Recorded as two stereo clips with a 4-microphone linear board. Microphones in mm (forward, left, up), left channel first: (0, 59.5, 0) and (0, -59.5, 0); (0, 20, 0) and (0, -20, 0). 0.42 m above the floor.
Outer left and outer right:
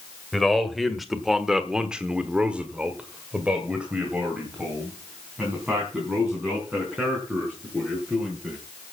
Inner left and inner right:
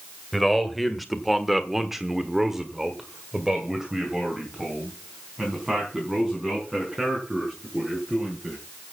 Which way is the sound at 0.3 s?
Centre (ahead or behind).